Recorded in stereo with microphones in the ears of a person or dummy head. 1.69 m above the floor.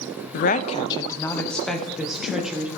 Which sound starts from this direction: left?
A woman speaking, at 0.3 s.